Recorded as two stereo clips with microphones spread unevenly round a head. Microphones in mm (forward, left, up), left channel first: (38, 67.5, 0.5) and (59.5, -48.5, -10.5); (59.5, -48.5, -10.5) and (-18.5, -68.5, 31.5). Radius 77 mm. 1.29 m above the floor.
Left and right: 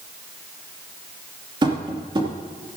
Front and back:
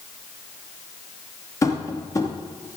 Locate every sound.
1.6 s tapping: 35° right, 2.5 m